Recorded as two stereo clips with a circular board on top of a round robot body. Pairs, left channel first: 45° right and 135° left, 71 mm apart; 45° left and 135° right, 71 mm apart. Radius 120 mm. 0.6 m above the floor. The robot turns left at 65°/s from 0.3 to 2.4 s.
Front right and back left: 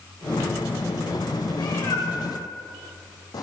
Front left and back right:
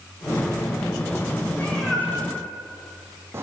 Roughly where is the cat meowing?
Ahead.